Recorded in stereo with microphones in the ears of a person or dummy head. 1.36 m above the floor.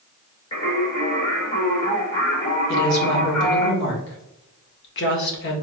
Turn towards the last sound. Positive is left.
turn(degrees=65)  # may be behind; listen again after turning